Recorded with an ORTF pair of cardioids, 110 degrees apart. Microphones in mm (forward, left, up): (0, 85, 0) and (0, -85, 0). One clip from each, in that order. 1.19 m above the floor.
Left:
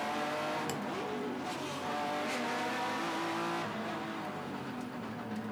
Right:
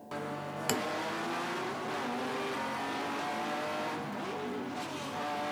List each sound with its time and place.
0.7 s tapping: 55° right